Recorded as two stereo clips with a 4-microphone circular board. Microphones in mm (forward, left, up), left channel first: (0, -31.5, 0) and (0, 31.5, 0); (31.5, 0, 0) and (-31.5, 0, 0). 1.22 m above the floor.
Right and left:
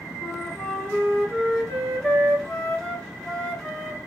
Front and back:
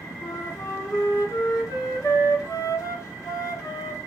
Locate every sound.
0.2 s a flute: 20° right, 1.6 m